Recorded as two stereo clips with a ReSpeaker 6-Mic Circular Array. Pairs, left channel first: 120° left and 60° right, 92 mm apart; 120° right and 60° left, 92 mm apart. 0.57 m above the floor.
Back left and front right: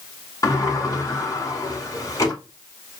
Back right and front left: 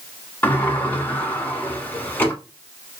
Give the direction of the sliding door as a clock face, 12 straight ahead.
6 o'clock.